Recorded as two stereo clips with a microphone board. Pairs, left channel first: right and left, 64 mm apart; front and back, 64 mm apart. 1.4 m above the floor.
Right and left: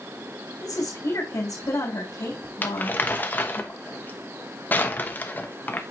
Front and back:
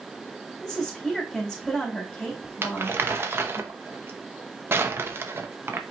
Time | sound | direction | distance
0.6 | a woman speaking | 90° right | 2.5 m
2.6 | crumpling | 140° right | 0.8 m